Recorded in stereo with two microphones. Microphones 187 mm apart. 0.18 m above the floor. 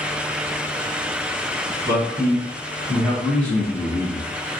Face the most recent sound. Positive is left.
turn(degrees=25)  # may be behind; listen again after turning